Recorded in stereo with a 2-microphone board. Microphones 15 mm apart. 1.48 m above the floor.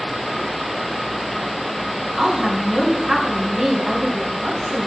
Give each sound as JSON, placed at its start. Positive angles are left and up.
{"t": 2.2, "sound": "a woman speaking", "side_deg": -55, "distance_m": 1.8}